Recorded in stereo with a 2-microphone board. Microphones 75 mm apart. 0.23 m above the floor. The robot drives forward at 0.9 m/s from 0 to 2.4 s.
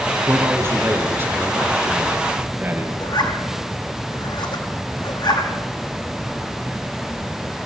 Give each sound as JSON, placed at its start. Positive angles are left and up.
{"t": 0.3, "sound": "a man speaking", "side_deg": -35, "distance_m": 3.5}
{"t": 3.0, "sound": "a zipper", "side_deg": 75, "distance_m": 5.0}